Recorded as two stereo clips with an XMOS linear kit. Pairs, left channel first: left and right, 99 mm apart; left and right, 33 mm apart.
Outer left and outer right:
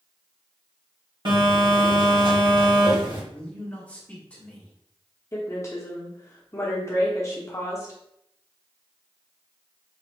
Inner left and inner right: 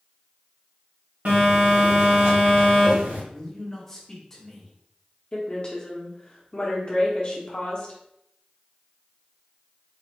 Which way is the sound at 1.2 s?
55° right (ahead or behind).